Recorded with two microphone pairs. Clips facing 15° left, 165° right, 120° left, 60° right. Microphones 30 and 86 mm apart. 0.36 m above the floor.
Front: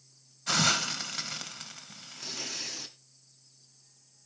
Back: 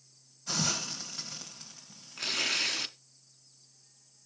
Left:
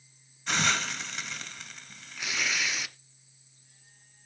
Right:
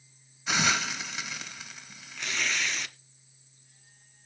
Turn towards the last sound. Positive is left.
turn(degrees=-155)